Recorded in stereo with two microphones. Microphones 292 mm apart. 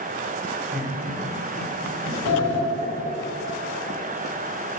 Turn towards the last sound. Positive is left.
turn(degrees=60)  # may be behind; listen again after turning